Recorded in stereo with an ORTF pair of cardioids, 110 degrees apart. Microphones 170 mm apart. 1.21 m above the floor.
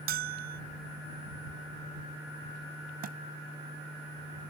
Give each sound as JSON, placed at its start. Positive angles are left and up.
{"t": 0.1, "sound": "a bell", "azimuth_deg": -60}
{"t": 3.0, "sound": "a thud", "azimuth_deg": -60}